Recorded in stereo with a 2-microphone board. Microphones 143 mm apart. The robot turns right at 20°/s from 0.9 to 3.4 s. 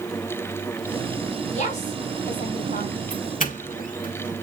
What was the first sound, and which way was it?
A woman speaking, 55° left (ahead or behind).